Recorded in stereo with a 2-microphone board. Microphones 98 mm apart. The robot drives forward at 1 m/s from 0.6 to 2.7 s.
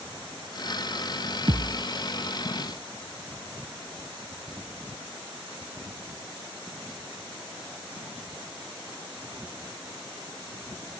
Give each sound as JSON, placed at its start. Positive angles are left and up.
{"t": 1.5, "sound": "a thud", "side_deg": -55, "distance_m": 0.6}